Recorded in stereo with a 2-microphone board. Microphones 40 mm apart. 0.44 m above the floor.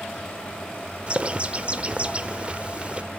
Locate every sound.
1.1 s a bird: 30° right (ahead or behind), 1.0 m